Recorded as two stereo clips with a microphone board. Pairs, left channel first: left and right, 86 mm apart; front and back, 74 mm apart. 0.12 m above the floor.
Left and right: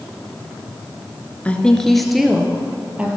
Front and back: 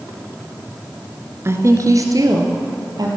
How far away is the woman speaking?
About 1.7 m.